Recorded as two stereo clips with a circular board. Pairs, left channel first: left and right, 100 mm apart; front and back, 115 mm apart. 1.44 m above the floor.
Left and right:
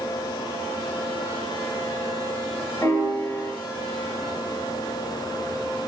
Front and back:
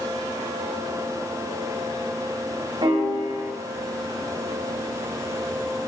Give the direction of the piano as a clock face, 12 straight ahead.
7 o'clock.